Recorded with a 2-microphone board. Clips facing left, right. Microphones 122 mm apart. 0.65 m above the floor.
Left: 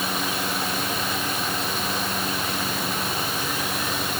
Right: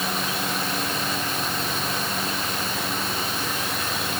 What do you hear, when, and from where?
Only background noise.